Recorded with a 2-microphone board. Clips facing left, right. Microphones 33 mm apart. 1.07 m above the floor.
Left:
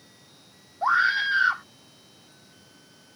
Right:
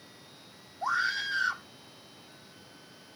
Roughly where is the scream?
Left.